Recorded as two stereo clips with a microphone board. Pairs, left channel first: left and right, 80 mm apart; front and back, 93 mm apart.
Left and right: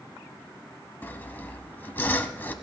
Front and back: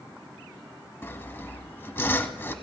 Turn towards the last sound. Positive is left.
turn(degrees=45)